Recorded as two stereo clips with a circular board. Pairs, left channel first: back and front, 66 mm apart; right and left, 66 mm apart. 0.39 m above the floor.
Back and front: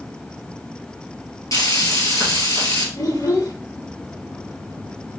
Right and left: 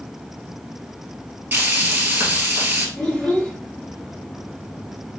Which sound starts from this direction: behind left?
Frying, at 1.5 s.